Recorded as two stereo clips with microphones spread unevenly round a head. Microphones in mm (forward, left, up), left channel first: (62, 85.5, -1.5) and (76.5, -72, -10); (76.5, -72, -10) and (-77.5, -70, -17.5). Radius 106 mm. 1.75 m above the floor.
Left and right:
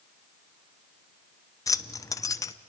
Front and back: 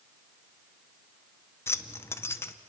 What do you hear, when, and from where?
1.7 s keys jangling: 55° left, 0.7 m